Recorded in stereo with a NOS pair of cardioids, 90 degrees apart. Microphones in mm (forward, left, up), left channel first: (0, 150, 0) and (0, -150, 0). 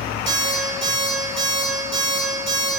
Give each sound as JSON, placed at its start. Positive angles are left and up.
{"t": 0.3, "sound": "an alarm clock", "azimuth_deg": -40, "distance_m": 1.7}